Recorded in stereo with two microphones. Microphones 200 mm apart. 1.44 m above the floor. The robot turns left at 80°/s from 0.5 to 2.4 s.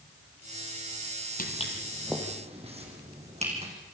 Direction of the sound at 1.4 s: 45° left (ahead or behind).